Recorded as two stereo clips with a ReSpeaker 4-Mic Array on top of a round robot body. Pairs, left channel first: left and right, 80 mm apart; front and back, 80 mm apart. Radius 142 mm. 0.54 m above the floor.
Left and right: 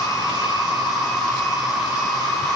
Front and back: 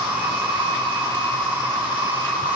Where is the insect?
Straight behind, 1.3 m.